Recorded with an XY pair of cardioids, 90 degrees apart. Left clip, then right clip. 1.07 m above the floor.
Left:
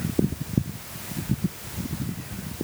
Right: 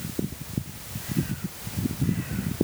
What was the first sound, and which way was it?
Only background noise.